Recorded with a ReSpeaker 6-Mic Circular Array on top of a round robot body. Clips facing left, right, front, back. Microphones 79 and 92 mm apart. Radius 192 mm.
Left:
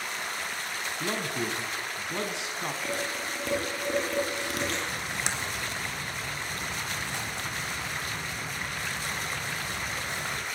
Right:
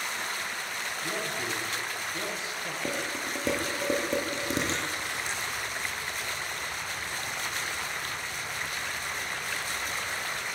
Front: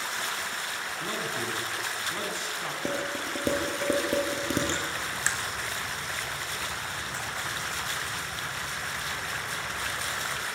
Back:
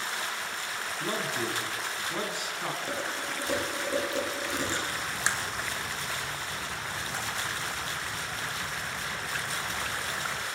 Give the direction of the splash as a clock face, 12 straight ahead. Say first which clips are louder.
Left 1 dB, even; 8 o'clock.